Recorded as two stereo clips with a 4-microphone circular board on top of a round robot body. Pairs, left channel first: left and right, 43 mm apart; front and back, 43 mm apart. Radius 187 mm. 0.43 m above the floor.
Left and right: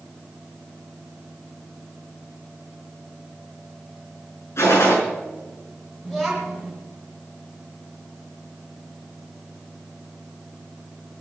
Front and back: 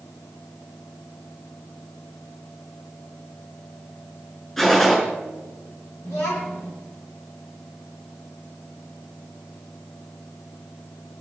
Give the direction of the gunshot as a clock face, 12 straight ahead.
9 o'clock.